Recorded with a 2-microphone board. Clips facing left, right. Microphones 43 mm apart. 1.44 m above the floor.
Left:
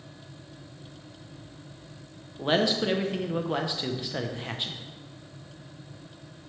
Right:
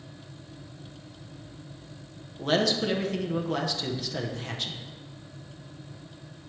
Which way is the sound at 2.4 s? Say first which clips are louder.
Even; 20° left (ahead or behind).